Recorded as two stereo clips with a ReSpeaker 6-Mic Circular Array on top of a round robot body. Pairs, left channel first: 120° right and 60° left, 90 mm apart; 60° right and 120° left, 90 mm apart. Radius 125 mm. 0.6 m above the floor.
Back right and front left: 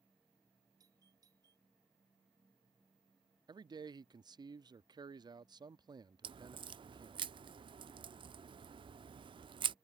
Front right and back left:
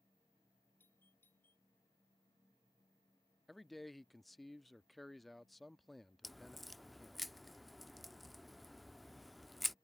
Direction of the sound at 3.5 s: 30° left.